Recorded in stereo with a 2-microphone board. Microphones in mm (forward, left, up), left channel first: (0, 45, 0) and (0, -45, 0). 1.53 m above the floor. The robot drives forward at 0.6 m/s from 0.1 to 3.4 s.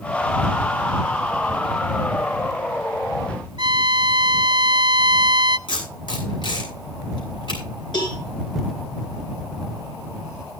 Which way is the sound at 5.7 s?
65° left (ahead or behind).